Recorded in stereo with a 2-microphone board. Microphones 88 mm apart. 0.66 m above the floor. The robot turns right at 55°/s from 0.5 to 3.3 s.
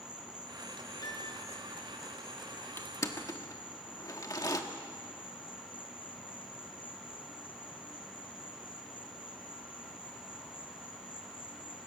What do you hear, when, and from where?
0.0 s an insect: 55° right, 4 m; by 11.9 s 100° left, 4 m
1.0 s a piano: 50° left (ahead or behind), 4 m; by 1.4 s 30° left (ahead or behind), 4 m
2.8 s crushing: 30° left (ahead or behind), 1.3 m; by 4.6 s 40° left (ahead or behind), 1.3 m